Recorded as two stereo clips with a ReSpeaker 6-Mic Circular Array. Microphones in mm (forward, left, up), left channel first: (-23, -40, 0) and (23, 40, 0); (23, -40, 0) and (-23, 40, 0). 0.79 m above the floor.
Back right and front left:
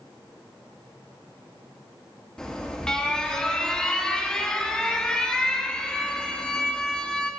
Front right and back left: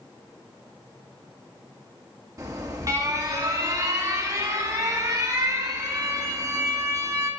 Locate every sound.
2.4 s an alarm: 160° left, 1.3 m